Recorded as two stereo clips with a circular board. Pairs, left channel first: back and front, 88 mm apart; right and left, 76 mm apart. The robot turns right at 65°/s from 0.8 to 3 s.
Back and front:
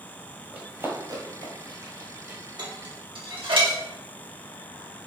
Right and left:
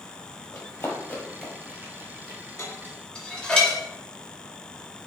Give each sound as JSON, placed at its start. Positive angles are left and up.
{"t": 0.5, "sound": "running footsteps", "azimuth_deg": -60, "distance_m": 1.2}
{"t": 2.6, "sound": "dishes clattering", "azimuth_deg": -40, "distance_m": 1.1}